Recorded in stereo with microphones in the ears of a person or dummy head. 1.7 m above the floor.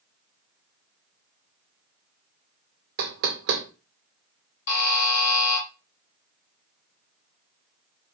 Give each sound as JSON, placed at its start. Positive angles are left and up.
{"t": 3.0, "sound": "knocking", "side_deg": -45, "distance_m": 0.8}
{"t": 4.7, "sound": "a buzzer", "side_deg": 60, "distance_m": 2.0}